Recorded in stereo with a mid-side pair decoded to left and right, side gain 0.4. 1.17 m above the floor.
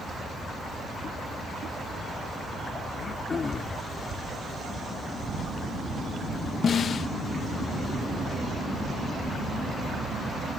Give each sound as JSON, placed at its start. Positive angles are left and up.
{"t": 2.9, "sound": "throat clearing", "azimuth_deg": 45}
{"t": 5.2, "sound": "a camera shutter", "azimuth_deg": -65}
{"t": 6.6, "sound": "a snare drum", "azimuth_deg": 60}